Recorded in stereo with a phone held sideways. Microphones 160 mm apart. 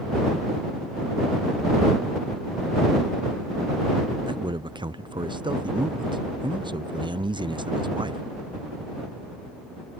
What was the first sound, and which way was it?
A man speaking, 25° right (ahead or behind).